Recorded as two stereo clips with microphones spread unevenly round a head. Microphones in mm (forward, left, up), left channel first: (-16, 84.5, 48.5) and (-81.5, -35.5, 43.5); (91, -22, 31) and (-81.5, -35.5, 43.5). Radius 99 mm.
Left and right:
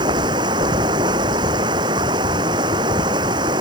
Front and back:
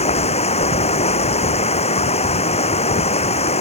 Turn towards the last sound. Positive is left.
turn(degrees=-50)